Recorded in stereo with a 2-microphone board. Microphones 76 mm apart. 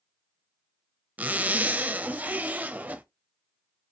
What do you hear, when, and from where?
1.2 s a zipper: 20° right (ahead or behind), 0.6 m